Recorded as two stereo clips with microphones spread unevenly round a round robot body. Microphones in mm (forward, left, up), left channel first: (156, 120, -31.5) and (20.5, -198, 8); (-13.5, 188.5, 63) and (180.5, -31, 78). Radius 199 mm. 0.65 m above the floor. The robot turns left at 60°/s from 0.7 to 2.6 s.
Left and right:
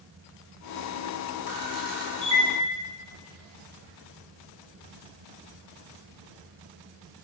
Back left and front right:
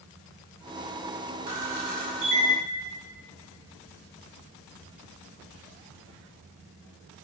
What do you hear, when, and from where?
1.5 s a camera shutter: 25° right, 4.5 m; by 2.5 s 85° right, 4.5 m